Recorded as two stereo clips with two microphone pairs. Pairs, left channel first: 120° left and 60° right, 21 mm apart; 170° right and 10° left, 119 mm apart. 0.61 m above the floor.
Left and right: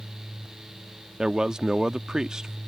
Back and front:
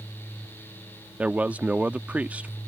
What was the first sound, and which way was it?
A man speaking, 65° right.